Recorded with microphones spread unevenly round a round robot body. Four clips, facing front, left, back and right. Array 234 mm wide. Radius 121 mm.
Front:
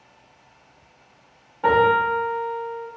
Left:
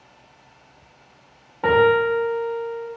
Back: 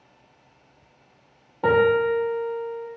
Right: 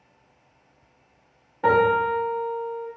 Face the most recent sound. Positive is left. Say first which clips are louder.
# left 3 dB, front 1 dB
turn(degrees=150)